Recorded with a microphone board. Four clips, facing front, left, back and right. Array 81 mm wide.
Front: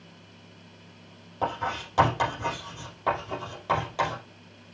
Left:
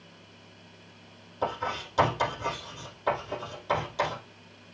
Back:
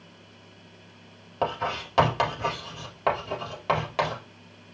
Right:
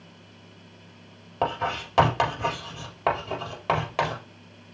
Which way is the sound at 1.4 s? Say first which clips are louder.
Right 4 dB, back 1 dB; 120° right.